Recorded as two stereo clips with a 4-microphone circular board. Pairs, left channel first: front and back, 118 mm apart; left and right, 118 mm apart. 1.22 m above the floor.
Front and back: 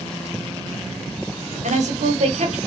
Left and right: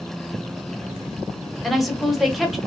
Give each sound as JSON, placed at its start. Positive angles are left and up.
{"t": 1.6, "sound": "a woman speaking", "azimuth_deg": 180, "distance_m": 1.0}